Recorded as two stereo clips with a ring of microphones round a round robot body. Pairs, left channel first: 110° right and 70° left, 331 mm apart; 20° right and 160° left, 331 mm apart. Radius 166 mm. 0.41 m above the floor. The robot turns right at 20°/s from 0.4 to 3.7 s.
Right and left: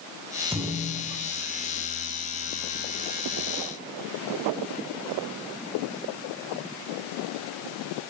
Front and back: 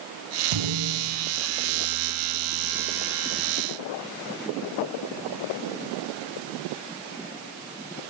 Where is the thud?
150° left, 2.5 m; by 1.3 s 165° left, 2.5 m.